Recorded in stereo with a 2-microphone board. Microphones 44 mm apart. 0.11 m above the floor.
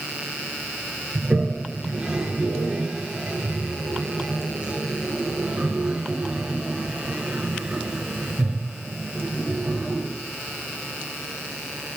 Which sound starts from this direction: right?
A toilet flushing, at 1.1 s.